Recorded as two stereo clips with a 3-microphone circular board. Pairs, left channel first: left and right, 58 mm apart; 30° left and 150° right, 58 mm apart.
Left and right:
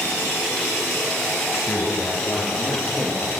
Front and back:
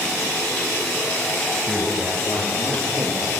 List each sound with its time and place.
1.6 s a man speaking: 130° left, 2.5 m; by 3.4 s straight behind, 3.5 m